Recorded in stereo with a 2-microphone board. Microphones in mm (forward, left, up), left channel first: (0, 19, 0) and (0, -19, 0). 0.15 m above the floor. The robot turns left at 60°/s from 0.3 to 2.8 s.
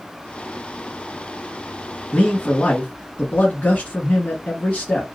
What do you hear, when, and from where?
2.1 s a man speaking: 145° left, 1.7 m; by 5.0 s 105° left, 1.7 m